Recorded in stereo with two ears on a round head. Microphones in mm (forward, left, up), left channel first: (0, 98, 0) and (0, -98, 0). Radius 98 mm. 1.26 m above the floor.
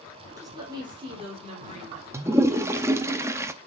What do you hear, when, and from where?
0.4 s a woman speaking: 15° right (ahead or behind), 3.5 m; by 3.1 s 40° right (ahead or behind), 4.5 m
2.1 s a toilet flushing: 15° right (ahead or behind), 0.7 m